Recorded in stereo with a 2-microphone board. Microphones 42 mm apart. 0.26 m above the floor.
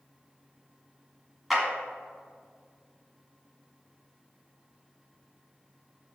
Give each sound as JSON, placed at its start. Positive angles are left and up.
{"t": 1.5, "sound": "a clap", "side_deg": 0, "distance_m": 1.9}